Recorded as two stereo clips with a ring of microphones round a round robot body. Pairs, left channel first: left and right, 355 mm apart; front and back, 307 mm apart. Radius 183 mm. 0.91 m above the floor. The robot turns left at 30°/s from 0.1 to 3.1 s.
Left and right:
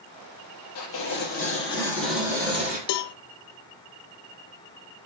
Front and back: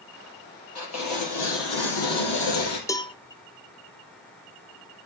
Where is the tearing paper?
40° left, 4.5 m; by 2.8 s 20° right, 4.5 m.